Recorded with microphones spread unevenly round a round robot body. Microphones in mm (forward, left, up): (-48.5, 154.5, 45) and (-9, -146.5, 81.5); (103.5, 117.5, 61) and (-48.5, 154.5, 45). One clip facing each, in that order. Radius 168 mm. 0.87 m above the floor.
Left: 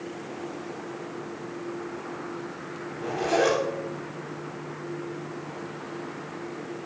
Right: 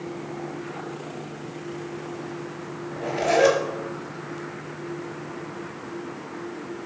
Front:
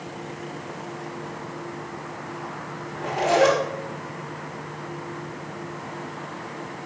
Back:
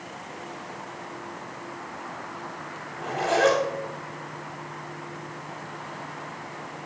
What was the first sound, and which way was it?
A zipper, 50° right.